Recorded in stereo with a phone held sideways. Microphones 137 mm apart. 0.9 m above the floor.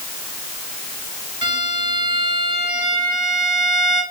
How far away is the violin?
About 2.5 m.